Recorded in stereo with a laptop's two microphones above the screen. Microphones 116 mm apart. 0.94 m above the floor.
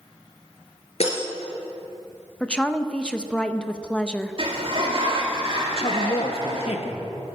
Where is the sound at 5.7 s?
55° left (ahead or behind), 1.2 m.